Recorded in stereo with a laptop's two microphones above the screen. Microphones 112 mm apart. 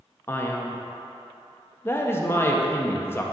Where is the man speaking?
25° left (ahead or behind), 0.9 m.